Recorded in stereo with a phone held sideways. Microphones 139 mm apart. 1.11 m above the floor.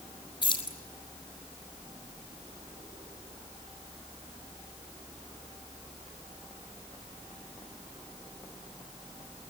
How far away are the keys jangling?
About 3.5 m.